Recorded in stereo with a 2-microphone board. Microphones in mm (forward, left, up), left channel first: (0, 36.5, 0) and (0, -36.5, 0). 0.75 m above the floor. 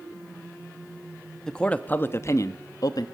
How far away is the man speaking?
About 0.7 m.